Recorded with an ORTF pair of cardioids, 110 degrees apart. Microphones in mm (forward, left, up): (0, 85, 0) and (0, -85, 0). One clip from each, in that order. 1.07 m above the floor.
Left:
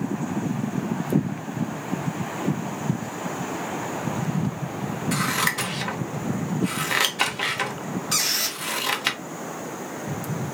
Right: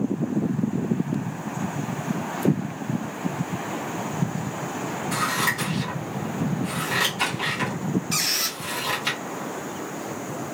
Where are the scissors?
45° left, 0.7 m.